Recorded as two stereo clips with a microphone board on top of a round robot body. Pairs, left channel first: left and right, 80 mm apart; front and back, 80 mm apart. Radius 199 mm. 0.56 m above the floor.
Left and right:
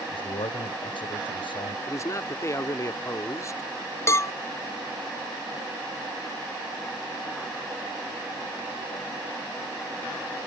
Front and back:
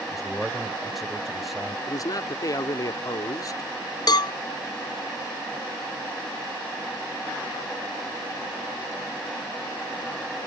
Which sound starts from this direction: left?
A man speaking, at 0.1 s.